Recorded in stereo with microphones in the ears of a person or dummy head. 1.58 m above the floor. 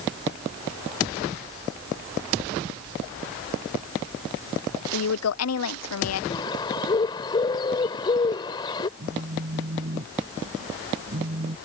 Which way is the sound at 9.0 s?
45° right (ahead or behind).